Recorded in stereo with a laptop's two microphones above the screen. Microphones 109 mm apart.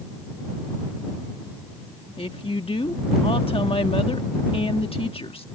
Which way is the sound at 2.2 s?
60° left (ahead or behind).